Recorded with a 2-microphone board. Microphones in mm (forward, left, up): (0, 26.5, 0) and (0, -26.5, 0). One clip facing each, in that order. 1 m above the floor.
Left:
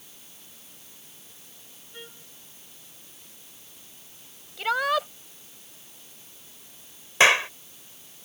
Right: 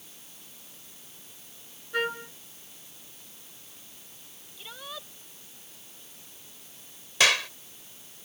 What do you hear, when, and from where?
1.9 s a trumpet: 90° right
4.6 s a shout: 75° left (ahead or behind)
7.2 s a clap: 30° left (ahead or behind)